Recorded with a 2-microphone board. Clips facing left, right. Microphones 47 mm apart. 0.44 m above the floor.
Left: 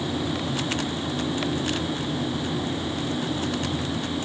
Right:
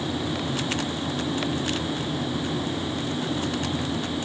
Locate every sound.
Only background noise.